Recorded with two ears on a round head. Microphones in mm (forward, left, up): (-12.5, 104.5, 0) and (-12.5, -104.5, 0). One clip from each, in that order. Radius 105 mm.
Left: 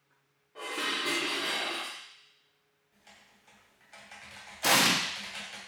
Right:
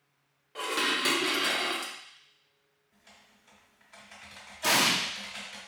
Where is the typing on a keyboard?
10° left (ahead or behind), 1.2 m.